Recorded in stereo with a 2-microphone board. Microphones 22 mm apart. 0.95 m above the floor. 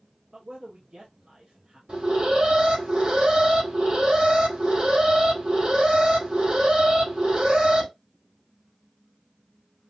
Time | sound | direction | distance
0.3 | a man speaking | 50° right (ahead or behind) | 1.3 m
1.9 | an alarm | 60° right (ahead or behind) | 3.5 m